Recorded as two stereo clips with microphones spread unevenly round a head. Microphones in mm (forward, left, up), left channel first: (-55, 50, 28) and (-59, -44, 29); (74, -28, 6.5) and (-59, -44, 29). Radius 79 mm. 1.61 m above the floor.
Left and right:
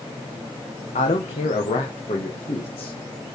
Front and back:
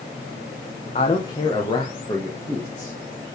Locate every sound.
0.9 s a man speaking: 65° left, 1.3 m; by 3.0 s 80° left, 3 m